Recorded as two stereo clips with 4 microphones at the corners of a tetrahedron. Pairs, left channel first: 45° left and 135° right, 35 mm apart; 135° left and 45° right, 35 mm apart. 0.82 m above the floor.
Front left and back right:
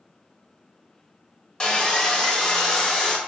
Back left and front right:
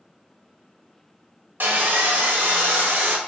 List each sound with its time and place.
1.6 s sawing: 20° right, 0.6 m